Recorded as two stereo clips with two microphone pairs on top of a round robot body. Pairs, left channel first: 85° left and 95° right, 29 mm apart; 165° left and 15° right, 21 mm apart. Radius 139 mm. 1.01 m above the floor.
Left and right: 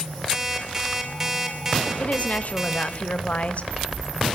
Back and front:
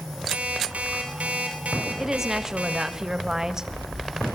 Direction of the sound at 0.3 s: 25° right.